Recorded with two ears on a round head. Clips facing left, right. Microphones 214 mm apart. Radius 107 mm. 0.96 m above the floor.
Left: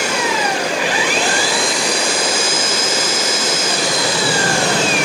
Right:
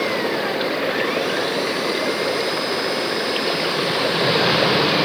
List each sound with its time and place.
0.0 s an engine running: 90° left